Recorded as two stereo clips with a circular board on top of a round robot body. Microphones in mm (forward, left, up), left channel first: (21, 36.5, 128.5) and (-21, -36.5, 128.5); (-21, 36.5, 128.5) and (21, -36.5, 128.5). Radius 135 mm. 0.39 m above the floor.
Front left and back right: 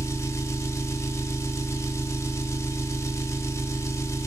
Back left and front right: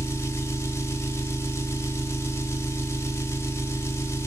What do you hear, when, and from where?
0.0 s an engine running: 85° left, 1.0 m